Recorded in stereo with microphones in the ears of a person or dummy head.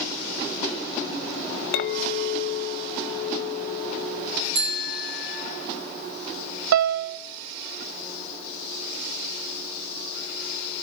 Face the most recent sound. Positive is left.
turn(degrees=-75)  # may be behind; listen again after turning